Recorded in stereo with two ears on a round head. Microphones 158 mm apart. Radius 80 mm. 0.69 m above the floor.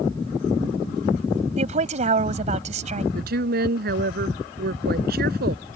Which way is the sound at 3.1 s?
60° right (ahead or behind).